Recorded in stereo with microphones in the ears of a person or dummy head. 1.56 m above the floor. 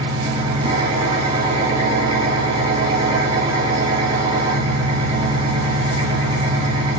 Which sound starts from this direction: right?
An engine running, at 0.0 s.